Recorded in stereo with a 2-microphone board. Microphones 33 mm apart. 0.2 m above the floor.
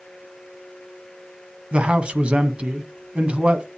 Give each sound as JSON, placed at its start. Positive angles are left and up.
{"t": 1.7, "sound": "a man speaking", "side_deg": -35, "distance_m": 1.4}